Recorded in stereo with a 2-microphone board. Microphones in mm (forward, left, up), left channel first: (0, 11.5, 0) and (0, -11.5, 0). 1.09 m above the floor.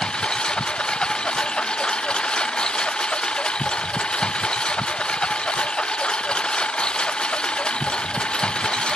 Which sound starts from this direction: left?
A lawn mower, at 0.0 s.